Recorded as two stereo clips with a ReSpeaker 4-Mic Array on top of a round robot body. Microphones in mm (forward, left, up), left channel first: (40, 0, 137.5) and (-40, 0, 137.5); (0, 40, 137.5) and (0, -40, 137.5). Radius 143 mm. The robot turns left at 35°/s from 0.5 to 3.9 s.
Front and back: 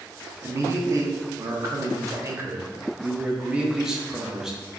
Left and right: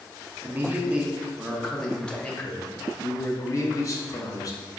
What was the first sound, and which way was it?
A man speaking, 140° right.